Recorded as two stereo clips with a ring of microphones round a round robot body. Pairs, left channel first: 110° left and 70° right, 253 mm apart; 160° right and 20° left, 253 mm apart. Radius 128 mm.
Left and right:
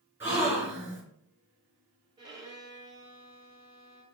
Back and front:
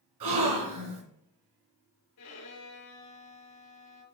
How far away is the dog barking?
I don't hear a dog barking.